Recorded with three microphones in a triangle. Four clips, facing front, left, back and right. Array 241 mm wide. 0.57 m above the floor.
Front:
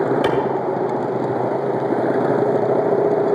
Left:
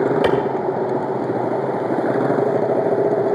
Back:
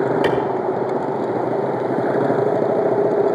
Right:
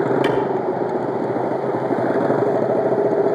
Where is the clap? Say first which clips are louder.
Left 2 dB, even; 85° left, 2.0 m.